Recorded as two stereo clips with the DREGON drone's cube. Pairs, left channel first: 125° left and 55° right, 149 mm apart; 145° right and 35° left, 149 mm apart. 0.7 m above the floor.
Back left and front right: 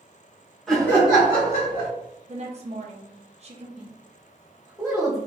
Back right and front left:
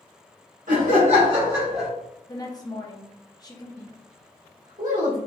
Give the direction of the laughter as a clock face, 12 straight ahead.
11 o'clock.